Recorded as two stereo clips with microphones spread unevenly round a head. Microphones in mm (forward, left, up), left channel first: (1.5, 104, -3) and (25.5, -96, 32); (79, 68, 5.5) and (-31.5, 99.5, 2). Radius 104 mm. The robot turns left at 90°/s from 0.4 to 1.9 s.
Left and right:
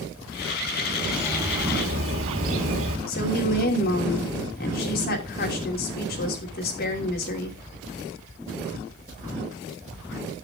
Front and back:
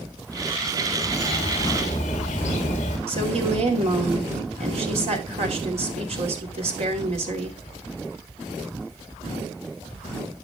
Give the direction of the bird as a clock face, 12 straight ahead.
11 o'clock.